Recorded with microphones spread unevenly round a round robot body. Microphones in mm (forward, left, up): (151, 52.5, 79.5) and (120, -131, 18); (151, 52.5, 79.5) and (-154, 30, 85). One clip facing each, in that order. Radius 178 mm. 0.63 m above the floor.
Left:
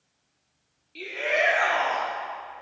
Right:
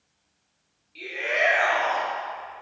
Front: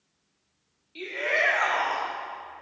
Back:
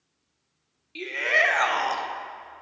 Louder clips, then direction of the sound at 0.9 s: Left 2 dB, back 1 dB; 140° left.